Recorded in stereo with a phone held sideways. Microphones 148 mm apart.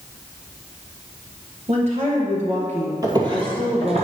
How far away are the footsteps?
About 1.5 m.